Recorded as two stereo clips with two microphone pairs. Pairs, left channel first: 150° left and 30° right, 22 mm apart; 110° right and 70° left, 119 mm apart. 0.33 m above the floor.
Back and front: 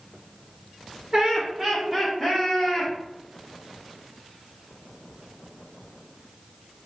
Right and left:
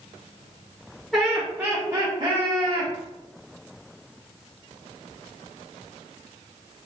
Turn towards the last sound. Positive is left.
turn(degrees=75)